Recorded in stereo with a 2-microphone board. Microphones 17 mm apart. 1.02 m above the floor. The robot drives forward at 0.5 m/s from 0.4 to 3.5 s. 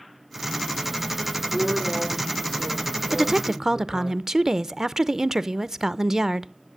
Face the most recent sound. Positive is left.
turn(degrees=-30)  # may be behind; listen again after turning